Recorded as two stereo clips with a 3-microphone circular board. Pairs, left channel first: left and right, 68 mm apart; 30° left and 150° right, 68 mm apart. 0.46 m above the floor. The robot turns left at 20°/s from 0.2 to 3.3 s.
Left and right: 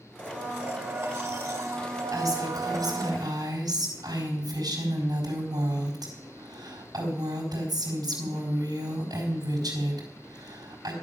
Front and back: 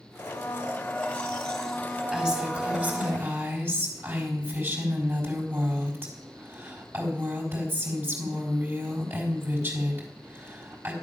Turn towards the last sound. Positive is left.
turn(degrees=-95)